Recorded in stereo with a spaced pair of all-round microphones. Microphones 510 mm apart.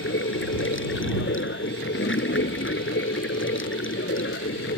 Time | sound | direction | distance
0.0 | running water | 25° left (ahead or behind) | ?